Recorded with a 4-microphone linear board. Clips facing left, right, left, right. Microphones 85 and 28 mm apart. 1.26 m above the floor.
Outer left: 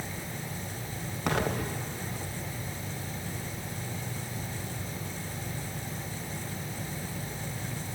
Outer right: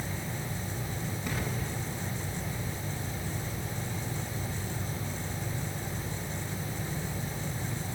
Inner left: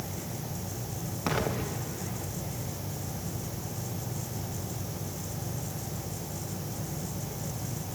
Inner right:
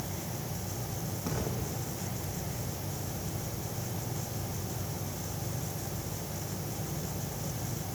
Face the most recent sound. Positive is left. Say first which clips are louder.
# outer left 9 dB, inner left 7 dB
turn(degrees=75)  # may be behind; listen again after turning